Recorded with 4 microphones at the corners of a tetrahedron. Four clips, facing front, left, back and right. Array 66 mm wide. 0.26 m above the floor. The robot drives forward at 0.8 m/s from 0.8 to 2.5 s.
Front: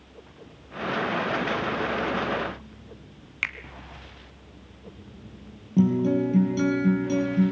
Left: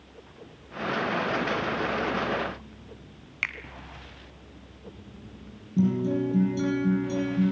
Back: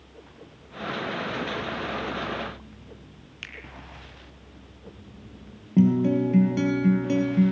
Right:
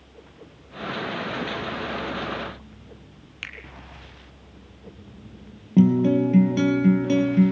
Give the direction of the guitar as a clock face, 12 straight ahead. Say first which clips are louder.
Right 7 dB, back 1 dB; 4 o'clock.